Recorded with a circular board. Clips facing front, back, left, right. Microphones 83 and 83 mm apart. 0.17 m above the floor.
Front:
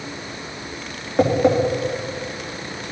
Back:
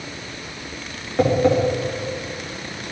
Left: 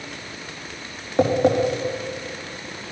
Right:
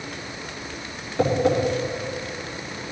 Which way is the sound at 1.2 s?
75° left.